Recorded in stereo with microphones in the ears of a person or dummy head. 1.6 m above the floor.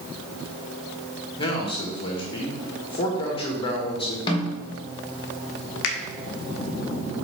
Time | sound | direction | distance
1.4 | a man speaking | 35° left (ahead or behind) | 1.7 m
4.3 | a snare drum | 25° left (ahead or behind) | 1.2 m
5.8 | a finger snap | 60° left (ahead or behind) | 1.0 m